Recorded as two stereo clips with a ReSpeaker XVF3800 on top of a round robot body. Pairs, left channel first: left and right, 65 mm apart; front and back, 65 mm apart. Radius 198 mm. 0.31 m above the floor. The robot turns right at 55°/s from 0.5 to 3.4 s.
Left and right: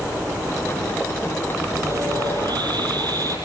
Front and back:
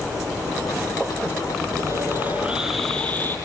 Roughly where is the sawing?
Behind right.